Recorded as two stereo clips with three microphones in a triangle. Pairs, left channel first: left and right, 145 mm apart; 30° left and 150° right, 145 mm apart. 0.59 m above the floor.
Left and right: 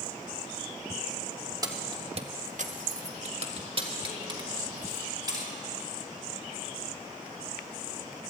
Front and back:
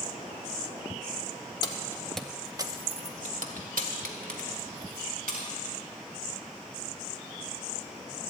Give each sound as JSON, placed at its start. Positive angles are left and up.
{"t": 1.6, "sound": "keys jangling", "azimuth_deg": -30, "distance_m": 1.0}